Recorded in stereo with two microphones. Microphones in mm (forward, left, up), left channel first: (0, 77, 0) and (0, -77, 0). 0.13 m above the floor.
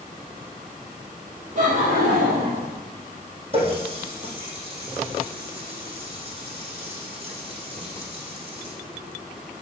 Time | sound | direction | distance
1.6 | laughter | 65° right (ahead or behind) | 3.5 m
3.5 | a running tap | 40° right (ahead or behind) | 3.5 m